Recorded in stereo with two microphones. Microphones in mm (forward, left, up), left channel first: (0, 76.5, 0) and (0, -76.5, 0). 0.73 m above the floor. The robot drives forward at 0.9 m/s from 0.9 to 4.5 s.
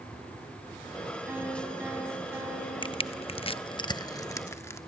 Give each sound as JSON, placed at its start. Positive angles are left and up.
{"t": 1.3, "sound": "a piano", "side_deg": -10, "distance_m": 5.5}
{"t": 2.8, "sound": "crushing", "side_deg": 30, "distance_m": 0.7}